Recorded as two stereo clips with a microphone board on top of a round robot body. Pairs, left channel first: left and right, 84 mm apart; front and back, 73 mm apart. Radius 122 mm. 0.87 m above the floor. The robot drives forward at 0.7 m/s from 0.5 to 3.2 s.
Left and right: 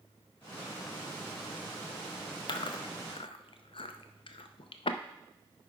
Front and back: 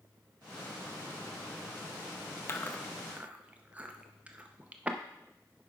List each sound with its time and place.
2.5 s chewing: 55° left, 0.6 m; by 5.0 s 105° left, 0.6 m